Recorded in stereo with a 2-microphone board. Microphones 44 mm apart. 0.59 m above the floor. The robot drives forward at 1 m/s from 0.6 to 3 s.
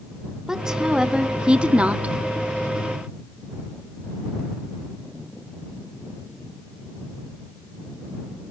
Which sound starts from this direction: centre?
A woman speaking, at 0.5 s.